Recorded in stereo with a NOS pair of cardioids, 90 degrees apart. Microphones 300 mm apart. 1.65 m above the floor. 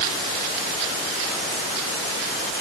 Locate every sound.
Only background noise.